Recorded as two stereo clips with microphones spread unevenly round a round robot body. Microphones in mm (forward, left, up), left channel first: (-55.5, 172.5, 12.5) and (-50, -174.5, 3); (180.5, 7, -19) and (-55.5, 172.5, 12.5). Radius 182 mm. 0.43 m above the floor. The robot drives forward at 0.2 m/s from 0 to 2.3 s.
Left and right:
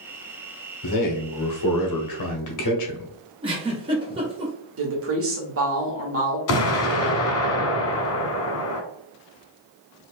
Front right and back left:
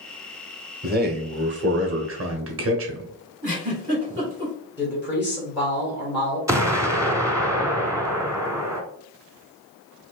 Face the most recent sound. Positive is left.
turn(degrees=60)